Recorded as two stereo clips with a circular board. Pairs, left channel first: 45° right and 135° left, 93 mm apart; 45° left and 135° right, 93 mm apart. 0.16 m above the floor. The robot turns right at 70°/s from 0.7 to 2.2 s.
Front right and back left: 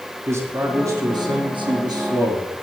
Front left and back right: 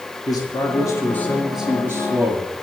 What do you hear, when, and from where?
0.3 s a man speaking: 80° left, 3.5 m; by 2.5 s 175° right, 3.5 m